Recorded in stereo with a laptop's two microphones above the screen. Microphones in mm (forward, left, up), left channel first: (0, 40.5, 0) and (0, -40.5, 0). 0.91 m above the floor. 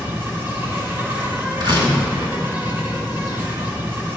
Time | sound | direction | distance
0.0 | an insect | 25° right (ahead or behind) | 1.3 m
1.6 | a door slam | 85° right | 2.5 m